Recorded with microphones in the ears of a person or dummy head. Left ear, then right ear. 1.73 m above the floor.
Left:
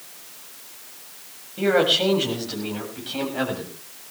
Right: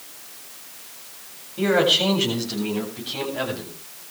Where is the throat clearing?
I don't hear throat clearing.